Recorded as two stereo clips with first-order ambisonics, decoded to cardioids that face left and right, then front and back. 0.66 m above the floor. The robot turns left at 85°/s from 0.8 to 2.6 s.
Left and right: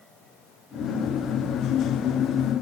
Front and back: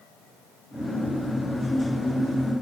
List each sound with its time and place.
Only background noise.